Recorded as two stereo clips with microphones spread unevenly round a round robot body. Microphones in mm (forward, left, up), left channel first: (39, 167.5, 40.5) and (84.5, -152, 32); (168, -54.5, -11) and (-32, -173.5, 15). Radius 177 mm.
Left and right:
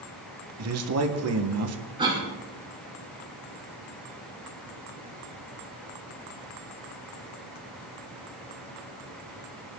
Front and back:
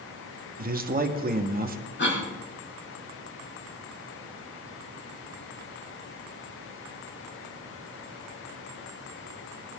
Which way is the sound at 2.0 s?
5° right.